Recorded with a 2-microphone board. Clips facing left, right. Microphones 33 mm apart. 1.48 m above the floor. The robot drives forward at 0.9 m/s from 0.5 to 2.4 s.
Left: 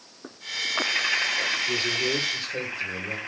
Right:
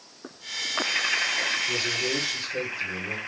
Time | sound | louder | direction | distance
1.7 | a man speaking | left 1 dB | 20° left (ahead or behind) | 4 m